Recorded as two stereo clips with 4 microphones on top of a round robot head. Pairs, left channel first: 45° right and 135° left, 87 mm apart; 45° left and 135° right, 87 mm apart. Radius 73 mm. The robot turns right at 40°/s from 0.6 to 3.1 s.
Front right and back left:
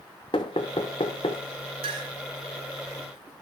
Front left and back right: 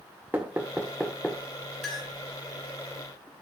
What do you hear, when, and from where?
0.3 s knocking: 65° right, 0.8 m; by 1.4 s 35° right, 0.8 m
1.8 s a clink: 135° left, 2 m; by 2.1 s 145° left, 2 m